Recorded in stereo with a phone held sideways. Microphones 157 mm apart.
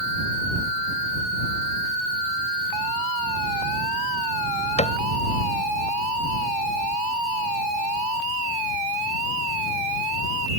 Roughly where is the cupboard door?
Left.